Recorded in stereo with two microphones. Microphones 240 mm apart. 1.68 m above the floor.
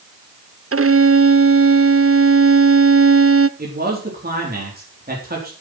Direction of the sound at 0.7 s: 60° right (ahead or behind).